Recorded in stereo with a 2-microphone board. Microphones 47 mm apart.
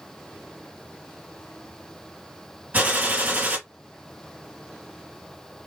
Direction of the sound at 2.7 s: 35° right (ahead or behind).